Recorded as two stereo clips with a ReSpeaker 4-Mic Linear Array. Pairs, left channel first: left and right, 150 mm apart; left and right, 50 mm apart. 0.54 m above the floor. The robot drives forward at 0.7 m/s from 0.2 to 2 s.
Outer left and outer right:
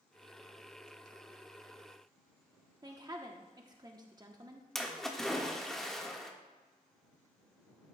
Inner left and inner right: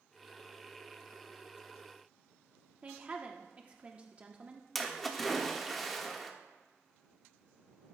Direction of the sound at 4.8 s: Centre (ahead or behind).